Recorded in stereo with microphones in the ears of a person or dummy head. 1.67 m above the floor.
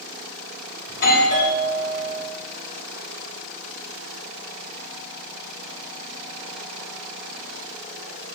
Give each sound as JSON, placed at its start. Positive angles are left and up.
{"t": 0.9, "sound": "a doorbell", "side_deg": 50, "distance_m": 6.0}